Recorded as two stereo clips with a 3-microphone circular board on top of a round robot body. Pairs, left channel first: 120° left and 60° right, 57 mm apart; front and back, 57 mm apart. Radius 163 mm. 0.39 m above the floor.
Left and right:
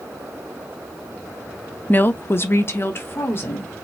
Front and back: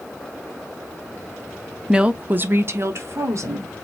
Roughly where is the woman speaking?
Left.